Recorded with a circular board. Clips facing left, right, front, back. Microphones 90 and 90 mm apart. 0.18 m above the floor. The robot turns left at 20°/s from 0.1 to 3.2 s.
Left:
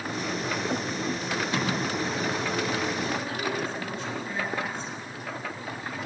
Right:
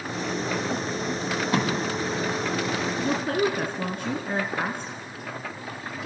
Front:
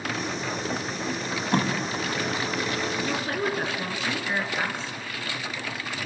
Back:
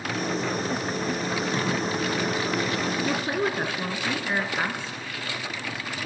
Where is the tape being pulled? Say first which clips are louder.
Right 6 dB, front 1 dB; 30° right, 5.5 m; by 1.7 s 40° right, 5.5 m.